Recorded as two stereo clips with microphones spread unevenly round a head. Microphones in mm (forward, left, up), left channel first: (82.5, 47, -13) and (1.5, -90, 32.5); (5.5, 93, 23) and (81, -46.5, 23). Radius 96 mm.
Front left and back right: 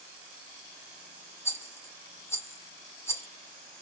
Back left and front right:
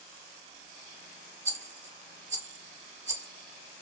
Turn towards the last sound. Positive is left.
turn(degrees=-25)